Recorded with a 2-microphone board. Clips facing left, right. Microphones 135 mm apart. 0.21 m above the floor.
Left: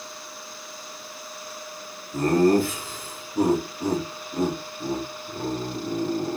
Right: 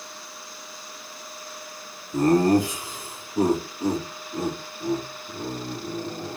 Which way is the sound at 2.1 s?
25° right (ahead or behind).